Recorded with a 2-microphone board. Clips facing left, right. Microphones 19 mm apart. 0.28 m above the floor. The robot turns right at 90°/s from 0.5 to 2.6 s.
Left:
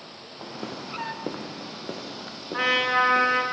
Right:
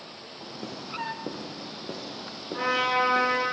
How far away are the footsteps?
About 1.1 m.